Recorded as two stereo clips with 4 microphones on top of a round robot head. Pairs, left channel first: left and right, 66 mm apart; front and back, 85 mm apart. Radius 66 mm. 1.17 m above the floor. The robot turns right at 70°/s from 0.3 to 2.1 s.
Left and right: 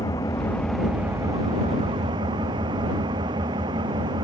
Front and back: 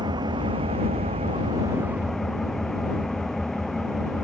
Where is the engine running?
145° left; by 4.2 s 85° right.